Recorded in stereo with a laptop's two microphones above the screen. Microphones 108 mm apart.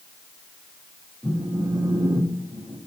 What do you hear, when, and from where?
1.2 s a phone buzzing: 5° right (ahead or behind), 0.5 m